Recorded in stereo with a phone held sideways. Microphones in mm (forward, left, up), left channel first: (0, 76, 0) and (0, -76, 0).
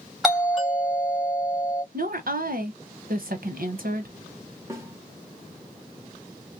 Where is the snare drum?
20° right (ahead or behind), 1.8 m.